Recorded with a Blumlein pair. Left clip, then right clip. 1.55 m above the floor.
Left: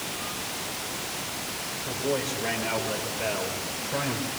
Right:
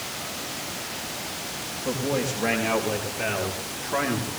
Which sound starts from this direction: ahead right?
A man speaking, at 1.9 s.